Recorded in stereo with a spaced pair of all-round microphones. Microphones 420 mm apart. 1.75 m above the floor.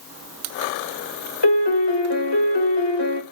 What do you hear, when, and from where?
1.4 s a piano: 75° left (ahead or behind), 1.0 m